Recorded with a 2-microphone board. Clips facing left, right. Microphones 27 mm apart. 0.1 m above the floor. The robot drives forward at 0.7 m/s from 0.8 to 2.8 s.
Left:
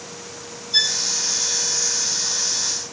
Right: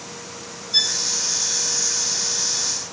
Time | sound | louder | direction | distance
0.7 | a violin | left 1 dB | 15° left (ahead or behind) | 1.9 m